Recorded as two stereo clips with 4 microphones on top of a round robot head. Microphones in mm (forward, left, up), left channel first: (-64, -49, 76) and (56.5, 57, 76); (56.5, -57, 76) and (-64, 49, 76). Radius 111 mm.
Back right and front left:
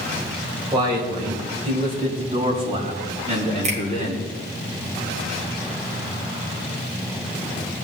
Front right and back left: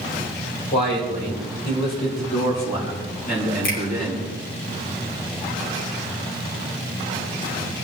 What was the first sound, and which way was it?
A man speaking, 25° right.